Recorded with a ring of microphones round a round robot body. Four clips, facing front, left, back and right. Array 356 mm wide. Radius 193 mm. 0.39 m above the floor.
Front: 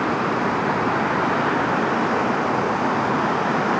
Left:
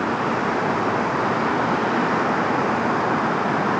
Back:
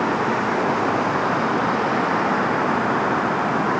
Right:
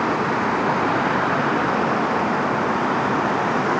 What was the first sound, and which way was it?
Only background noise.